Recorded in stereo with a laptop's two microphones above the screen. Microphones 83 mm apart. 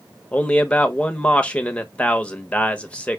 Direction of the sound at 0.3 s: 15° left (ahead or behind).